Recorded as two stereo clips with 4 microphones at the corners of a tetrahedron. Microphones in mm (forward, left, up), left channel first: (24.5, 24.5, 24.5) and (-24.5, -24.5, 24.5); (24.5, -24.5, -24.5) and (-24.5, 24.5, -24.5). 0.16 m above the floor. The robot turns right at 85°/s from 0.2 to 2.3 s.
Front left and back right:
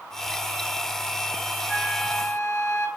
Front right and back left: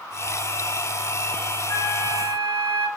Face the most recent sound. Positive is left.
turn(degrees=10)